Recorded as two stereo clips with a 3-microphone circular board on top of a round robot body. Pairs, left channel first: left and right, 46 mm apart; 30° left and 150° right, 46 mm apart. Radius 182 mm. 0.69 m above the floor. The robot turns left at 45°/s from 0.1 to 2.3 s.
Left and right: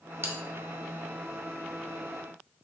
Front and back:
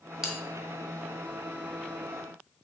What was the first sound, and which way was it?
A bell, 70° right.